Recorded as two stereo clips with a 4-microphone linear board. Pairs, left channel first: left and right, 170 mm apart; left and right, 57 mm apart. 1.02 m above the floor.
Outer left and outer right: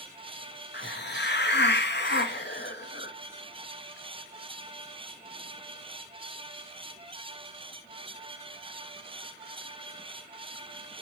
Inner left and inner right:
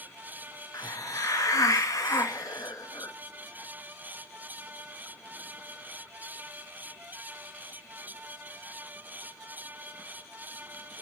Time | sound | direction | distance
0.7 | a hiss | 80° left | 0.6 m